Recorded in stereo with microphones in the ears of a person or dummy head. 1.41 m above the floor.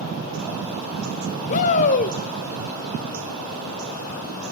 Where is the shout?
40° left (ahead or behind), 0.9 m.